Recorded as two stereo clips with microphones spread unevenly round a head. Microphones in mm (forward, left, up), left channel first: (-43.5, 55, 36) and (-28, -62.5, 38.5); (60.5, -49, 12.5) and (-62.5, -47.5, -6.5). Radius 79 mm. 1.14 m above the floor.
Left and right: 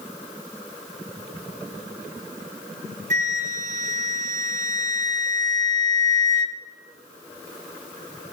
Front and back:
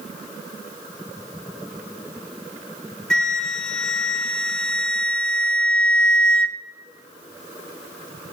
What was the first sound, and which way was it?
A flute, 75° right.